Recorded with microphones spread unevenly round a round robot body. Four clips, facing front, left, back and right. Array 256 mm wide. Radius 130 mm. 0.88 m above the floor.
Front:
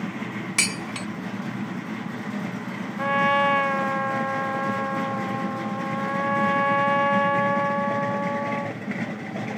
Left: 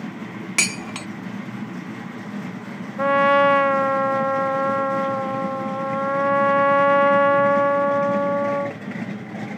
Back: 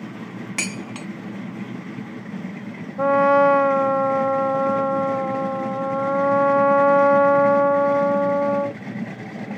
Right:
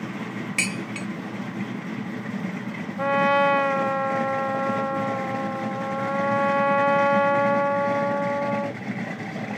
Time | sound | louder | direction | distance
0.6 | dishes clattering | left 3 dB, back 1 dB | 80° left | ?
3.0 | a trumpet | left 4 dB, back 6 dB | 160° left | ?